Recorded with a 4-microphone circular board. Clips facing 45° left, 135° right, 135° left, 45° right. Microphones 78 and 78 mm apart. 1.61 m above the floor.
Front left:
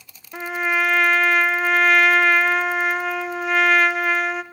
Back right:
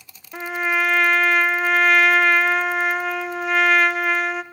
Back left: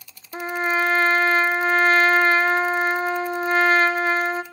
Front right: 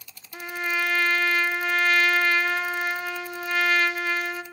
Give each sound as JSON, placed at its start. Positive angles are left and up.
{"t": 0.3, "sound": "a trumpet", "azimuth_deg": 135, "distance_m": 0.6}